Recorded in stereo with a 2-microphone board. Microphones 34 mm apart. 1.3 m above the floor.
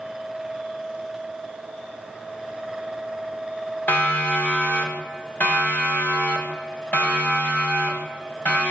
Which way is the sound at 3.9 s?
65° left (ahead or behind).